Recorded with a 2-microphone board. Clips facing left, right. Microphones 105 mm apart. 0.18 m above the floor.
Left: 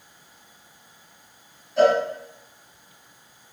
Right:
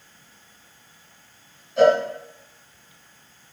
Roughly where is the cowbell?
Centre.